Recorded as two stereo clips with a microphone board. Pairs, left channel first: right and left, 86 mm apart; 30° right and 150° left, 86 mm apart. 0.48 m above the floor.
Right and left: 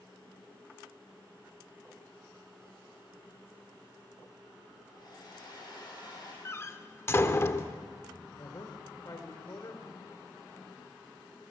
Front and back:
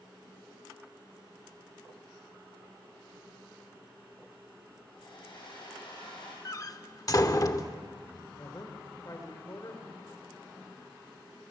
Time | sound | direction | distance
4.9 | a hair dryer | 50° right | 7.5 m
6.5 | a door slam | 45° right | 0.9 m
8.3 | a man speaking | 60° right | 2 m